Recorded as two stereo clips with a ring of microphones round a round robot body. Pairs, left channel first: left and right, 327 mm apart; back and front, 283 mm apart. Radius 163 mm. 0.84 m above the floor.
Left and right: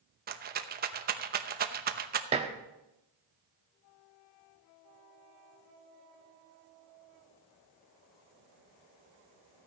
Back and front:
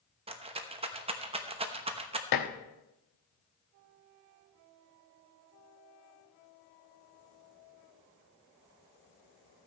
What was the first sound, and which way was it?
A rattle, 55° right.